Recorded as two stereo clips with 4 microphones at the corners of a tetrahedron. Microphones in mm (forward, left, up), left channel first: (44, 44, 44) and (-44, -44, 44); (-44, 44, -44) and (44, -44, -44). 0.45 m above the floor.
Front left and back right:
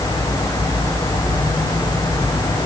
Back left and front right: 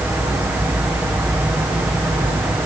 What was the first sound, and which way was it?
Only background noise.